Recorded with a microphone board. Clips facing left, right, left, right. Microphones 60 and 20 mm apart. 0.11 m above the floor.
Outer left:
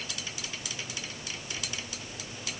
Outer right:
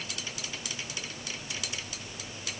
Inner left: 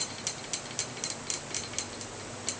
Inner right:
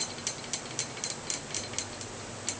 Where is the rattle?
No rattle in this recording.